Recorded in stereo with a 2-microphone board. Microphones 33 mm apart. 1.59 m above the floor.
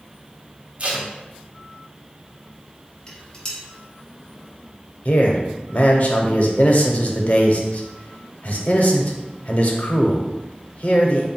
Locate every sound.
0.8 s tape being pulled: 40° right (ahead or behind), 0.9 m
3.1 s dishes clattering: 25° left (ahead or behind), 1.1 m
5.0 s a man speaking: 50° left (ahead or behind), 0.7 m